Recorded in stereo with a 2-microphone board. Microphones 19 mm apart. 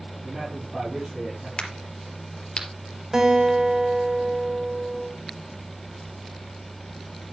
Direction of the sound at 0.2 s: 20° right (ahead or behind).